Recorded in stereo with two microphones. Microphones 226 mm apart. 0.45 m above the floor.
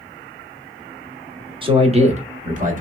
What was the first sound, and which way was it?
A man speaking, 25° right (ahead or behind).